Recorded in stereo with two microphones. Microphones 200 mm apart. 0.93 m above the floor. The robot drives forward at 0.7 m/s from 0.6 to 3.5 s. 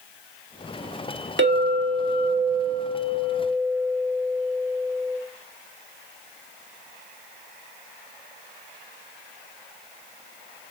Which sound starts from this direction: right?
A clink, at 1.4 s.